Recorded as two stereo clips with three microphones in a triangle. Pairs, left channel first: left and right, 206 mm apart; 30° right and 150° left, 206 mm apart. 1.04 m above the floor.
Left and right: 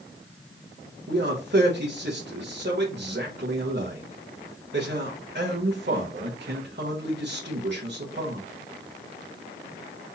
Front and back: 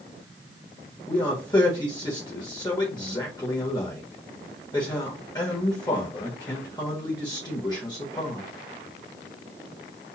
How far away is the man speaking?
About 1.4 m.